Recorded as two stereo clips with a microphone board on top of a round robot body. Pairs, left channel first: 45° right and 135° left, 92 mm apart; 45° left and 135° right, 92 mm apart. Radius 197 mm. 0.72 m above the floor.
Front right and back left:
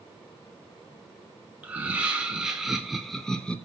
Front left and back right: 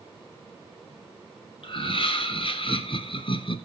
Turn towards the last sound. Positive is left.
turn(degrees=30)